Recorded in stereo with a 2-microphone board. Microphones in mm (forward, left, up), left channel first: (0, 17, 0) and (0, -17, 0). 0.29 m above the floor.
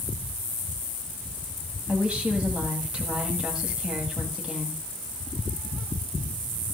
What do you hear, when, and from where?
1.9 s a woman speaking: 25° right (ahead or behind), 1.9 m